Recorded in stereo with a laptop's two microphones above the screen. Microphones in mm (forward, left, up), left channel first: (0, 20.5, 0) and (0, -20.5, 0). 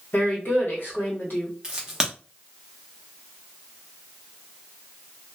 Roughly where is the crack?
Centre.